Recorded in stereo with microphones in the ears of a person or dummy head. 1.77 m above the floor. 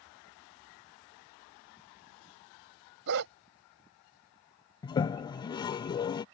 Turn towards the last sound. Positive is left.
turn(degrees=20)  # may be behind; listen again after turning